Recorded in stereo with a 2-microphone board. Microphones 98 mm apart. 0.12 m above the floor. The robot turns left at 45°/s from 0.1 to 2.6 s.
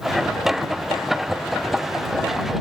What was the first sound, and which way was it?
Only background noise.